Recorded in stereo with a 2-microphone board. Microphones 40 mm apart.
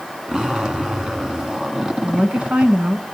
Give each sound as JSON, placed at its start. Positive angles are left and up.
{"t": 0.3, "sound": "a zipper", "side_deg": -20, "distance_m": 1.4}
{"t": 2.0, "sound": "a woman speaking", "side_deg": -35, "distance_m": 1.2}